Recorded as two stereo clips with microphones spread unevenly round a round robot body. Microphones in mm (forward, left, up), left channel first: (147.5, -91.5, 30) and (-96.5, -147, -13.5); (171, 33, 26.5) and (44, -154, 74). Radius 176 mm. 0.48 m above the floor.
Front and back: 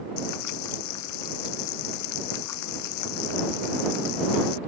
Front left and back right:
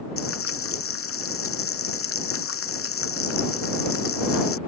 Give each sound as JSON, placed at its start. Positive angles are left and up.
{"t": 0.2, "sound": "frying", "azimuth_deg": 30}